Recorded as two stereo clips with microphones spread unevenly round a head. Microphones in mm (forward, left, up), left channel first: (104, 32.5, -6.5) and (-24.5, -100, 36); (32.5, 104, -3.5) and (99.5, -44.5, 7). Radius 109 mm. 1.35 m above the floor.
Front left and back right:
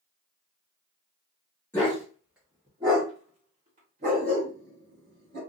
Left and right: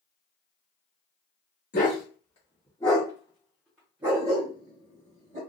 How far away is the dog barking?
About 1.1 m.